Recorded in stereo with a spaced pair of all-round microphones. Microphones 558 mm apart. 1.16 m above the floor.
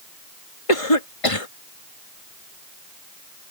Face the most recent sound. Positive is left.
turn(degrees=70)  # may be behind; listen again after turning